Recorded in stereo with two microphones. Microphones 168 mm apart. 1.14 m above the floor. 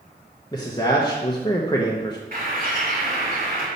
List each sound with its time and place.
0.5 s a man speaking: 25° left (ahead or behind), 0.8 m
2.3 s a bird: 60° right (ahead or behind), 2.5 m